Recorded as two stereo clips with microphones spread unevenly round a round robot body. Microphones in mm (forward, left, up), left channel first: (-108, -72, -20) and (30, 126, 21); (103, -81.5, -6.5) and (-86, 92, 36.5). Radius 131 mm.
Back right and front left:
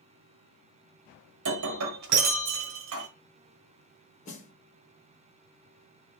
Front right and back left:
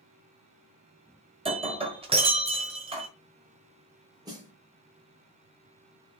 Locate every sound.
1.4 s breaking glass: 65° left, 1.0 m
4.2 s a snare drum: 140° right, 1.3 m